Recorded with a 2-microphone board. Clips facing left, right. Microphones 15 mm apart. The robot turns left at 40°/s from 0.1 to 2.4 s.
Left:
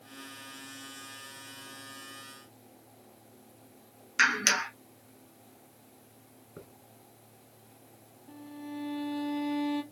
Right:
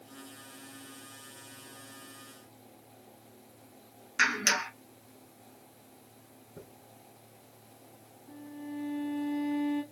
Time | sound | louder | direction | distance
4.2 | a clap | left 2 dB | 20° left (ahead or behind) | 1.1 m
6.6 | a hiss | left 1 dB | 80° left | 2.5 m
8.3 | a violin | even | 50° left (ahead or behind) | 1.2 m